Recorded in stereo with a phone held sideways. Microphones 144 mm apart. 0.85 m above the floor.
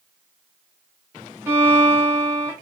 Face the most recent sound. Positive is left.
turn(degrees=-15)  # may be behind; listen again after turning